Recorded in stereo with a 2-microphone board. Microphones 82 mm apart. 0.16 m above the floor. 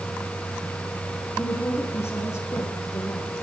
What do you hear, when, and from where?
1.4 s a woman speaking: 35° left (ahead or behind), 8 m